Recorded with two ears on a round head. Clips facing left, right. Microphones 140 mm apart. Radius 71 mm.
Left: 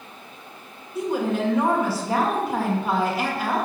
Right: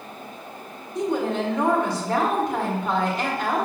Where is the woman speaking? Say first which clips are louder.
Even; 5° left (ahead or behind), 1.7 m.